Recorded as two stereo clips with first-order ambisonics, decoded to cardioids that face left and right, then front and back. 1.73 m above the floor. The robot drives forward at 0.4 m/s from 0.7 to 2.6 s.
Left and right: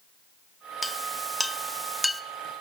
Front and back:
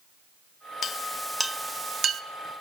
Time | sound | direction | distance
0.8 | a clink | 5° left | 0.6 m